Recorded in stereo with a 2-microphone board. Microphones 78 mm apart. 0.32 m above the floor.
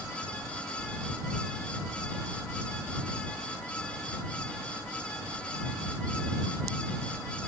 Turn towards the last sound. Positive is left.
No sound to turn to.